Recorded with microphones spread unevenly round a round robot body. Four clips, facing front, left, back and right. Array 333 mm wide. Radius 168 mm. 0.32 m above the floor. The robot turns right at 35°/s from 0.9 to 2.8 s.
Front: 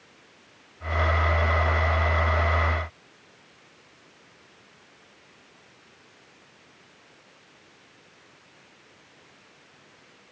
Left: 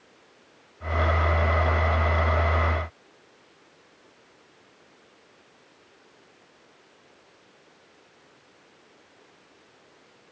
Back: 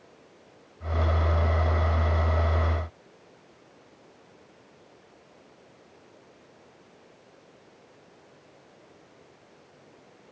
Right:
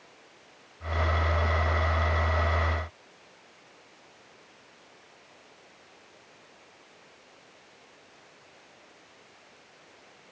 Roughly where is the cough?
I don't hear a cough.